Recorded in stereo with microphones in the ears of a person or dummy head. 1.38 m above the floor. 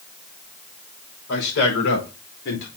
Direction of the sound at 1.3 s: 70° left (ahead or behind).